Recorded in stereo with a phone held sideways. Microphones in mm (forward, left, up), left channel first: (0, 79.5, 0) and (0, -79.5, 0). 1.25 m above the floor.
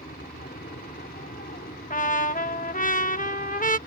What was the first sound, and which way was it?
An aircraft, 70° left (ahead or behind).